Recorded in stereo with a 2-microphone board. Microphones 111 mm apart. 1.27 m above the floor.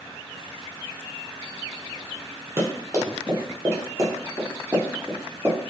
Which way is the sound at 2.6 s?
25° right (ahead or behind).